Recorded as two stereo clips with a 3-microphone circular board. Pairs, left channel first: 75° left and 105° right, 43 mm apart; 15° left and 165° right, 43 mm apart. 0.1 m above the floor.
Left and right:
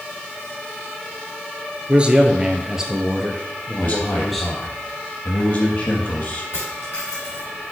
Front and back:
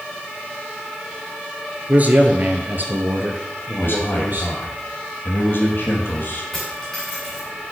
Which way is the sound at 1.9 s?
150° right.